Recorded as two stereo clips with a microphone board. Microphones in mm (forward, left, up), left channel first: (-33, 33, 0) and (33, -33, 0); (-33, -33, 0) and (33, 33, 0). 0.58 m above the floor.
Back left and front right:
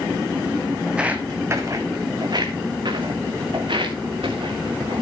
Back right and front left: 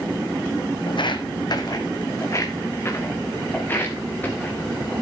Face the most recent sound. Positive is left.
turn(degrees=-60)